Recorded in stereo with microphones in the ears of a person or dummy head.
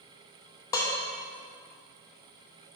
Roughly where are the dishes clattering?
Left.